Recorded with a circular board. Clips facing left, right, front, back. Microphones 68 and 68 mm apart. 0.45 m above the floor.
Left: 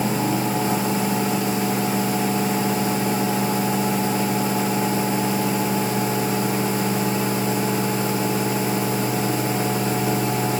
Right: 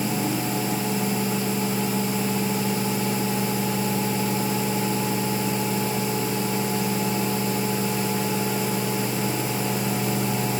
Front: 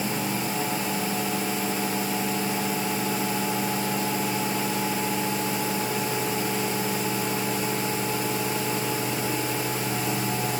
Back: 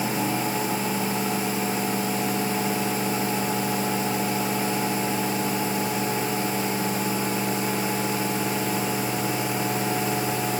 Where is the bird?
No bird in this recording.